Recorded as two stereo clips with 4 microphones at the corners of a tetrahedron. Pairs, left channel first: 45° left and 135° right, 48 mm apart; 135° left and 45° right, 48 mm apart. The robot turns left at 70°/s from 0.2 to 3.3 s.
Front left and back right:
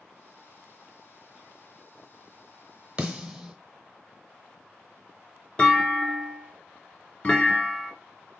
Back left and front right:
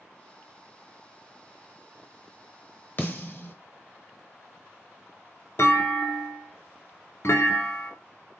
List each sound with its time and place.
3.0 s a snare drum: 165° left, 1.0 m; by 3.5 s 140° left, 1.0 m
5.6 s a clunk: 110° left, 0.9 m